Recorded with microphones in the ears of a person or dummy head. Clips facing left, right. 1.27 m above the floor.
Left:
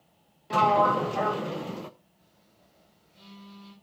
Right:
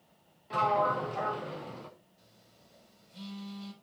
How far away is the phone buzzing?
About 6 m.